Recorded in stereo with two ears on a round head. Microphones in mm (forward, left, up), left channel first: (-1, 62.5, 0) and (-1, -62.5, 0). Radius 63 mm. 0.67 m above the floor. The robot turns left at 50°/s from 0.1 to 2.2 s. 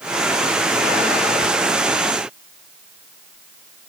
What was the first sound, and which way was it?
Only background noise.